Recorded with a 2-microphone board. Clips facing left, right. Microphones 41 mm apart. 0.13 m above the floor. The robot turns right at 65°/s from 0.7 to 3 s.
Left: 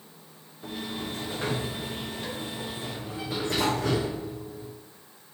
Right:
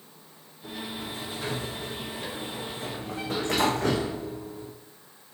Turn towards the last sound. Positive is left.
turn(degrees=-115)